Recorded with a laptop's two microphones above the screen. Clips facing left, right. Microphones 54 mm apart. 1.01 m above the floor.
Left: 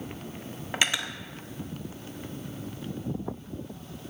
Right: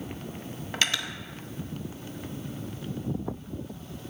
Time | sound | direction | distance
0.7 | cutlery clinking | 15° left (ahead or behind) | 0.5 m